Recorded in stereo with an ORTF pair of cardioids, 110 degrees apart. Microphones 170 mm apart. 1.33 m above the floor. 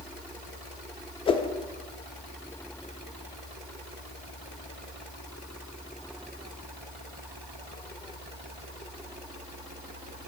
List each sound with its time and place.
1.3 s a whoosh: 30° left, 0.6 m